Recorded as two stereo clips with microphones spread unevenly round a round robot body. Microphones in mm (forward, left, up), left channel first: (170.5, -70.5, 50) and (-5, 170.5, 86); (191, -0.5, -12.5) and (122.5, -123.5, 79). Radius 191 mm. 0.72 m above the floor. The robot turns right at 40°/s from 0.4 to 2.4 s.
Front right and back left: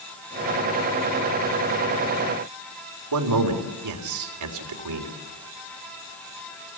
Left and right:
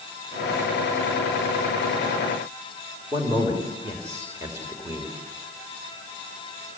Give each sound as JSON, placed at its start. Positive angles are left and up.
{"t": 3.1, "sound": "a man speaking", "azimuth_deg": 150, "distance_m": 3.5}